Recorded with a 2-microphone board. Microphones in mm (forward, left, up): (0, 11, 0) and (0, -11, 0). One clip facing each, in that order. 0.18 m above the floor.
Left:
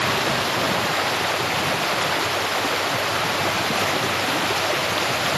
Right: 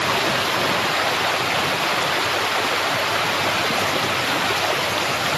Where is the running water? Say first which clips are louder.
Right 1 dB; 10° right (ahead or behind).